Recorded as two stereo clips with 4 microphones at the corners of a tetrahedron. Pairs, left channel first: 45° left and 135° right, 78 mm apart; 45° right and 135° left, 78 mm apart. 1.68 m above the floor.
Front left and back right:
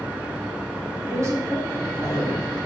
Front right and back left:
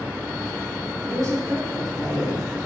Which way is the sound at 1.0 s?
175° left.